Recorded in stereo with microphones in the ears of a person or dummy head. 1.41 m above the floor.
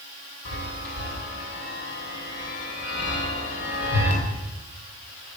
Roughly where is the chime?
Left.